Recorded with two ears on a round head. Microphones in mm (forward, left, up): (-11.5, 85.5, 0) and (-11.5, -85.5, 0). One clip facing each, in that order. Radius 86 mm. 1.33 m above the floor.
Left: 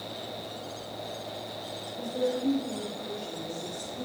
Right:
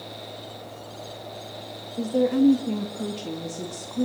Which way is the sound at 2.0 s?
85° right.